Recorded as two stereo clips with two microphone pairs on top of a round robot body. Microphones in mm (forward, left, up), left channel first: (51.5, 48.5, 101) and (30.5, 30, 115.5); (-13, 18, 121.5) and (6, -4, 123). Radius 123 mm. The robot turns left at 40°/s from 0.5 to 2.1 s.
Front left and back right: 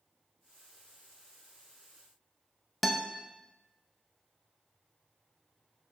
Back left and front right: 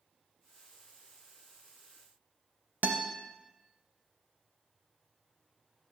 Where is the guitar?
50° right, 0.6 m.